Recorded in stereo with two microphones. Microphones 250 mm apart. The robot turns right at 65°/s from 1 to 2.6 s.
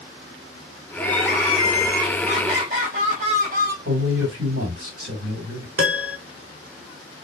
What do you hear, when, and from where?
1.0 s crying: 155° left, 1.8 m; by 3.8 s 100° right, 1.8 m
3.9 s a man speaking: 60° right (ahead or behind), 1.8 m
5.8 s a piano: 55° right (ahead or behind), 0.8 m